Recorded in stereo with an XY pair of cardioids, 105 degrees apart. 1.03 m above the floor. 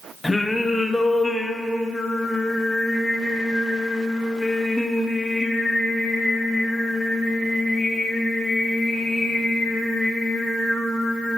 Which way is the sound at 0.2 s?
20° left.